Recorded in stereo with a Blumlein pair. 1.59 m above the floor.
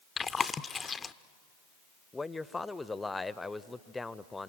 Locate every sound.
0.2 s chewing: 15° left, 0.5 m
2.1 s a man speaking: 10° left, 0.6 m